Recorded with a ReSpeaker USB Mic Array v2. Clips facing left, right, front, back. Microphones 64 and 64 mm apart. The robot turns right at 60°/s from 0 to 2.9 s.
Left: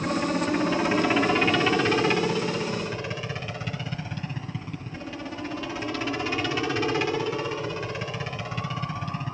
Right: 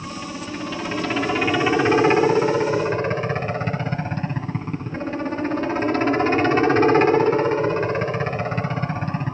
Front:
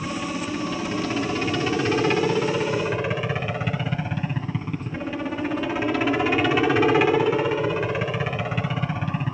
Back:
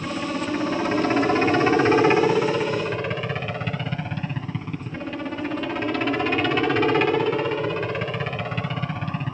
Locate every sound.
0.0 s a helicopter: 105° left; by 9.3 s 85° right